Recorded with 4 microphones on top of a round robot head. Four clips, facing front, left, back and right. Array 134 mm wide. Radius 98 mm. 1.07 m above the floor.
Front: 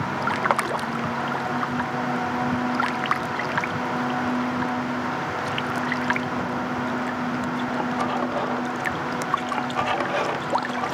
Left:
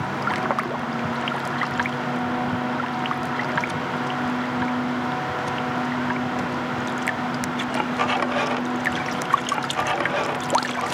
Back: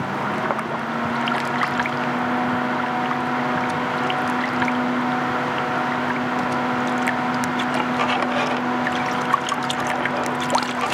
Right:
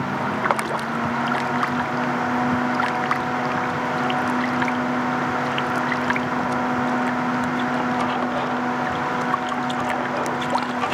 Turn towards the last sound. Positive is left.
No sound to turn to.